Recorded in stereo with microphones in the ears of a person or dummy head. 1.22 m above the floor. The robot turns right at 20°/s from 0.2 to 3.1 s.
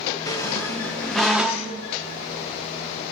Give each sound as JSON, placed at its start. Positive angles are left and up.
{"t": 0.3, "sound": "a squeak", "side_deg": 15, "distance_m": 1.0}